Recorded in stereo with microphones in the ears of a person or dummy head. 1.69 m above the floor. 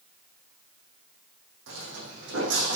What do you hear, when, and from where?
1.7 s footsteps: 60° right (ahead or behind), 4.5 m; by 2.8 s 65° right (ahead or behind), 5 m